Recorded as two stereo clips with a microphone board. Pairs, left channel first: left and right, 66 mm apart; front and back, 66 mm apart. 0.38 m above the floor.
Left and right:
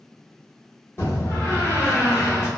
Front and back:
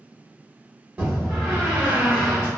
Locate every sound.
1.0 s a door slam: 115° left, 1.1 m